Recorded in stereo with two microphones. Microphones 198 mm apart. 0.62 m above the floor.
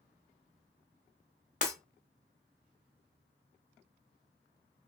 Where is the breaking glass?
40° left (ahead or behind), 1.3 m.